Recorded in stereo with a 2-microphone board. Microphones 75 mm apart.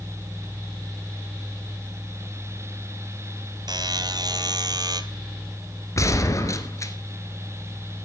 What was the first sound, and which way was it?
A buzzer, 60° right (ahead or behind).